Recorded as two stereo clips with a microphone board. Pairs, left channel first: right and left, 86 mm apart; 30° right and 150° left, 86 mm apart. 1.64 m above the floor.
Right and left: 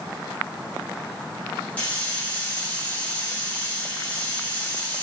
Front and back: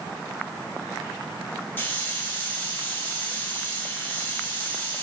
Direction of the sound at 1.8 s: 40° right.